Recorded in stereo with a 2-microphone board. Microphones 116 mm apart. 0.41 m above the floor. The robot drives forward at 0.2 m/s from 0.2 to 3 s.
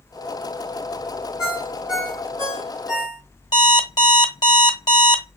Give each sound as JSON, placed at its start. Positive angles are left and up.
{"t": 1.4, "sound": "a ringtone", "side_deg": -5, "distance_m": 2.0}
{"t": 3.5, "sound": "an alarm clock", "side_deg": 40, "distance_m": 0.8}